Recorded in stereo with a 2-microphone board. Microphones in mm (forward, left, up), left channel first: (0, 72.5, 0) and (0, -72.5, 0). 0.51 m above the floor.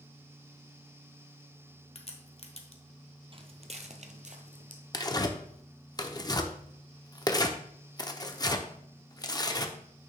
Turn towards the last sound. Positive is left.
turn(degrees=25)  # may be behind; listen again after turning